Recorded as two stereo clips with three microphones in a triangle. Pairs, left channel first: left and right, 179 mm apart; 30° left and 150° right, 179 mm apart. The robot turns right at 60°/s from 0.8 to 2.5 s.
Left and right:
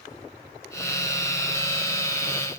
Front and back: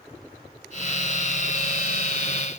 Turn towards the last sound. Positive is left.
No sound to turn to.